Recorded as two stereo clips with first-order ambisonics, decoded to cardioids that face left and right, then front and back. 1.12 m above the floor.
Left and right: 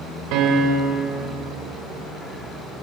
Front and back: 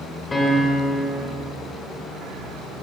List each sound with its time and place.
0.3 s a piano: 75° right, 2.5 m